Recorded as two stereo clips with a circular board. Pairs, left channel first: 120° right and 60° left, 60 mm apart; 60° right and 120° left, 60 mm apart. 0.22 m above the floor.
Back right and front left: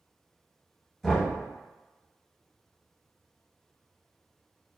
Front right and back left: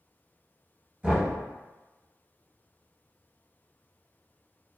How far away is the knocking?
About 1.0 m.